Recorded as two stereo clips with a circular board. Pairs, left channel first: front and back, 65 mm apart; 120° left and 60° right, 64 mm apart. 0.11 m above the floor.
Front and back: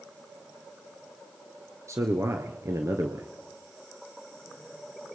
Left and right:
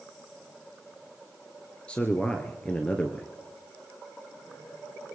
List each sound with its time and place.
1.9 s a man speaking: 175° right, 2 m